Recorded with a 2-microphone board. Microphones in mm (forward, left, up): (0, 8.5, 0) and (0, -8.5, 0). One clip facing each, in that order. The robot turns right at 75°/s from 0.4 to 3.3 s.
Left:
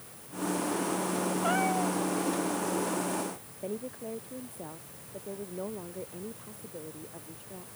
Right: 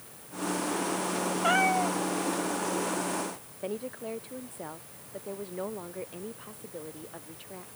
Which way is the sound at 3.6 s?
55° right (ahead or behind).